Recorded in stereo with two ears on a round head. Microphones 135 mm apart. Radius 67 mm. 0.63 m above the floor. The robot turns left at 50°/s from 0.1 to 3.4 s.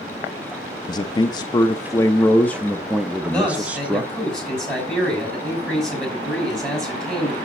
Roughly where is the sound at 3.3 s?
Centre.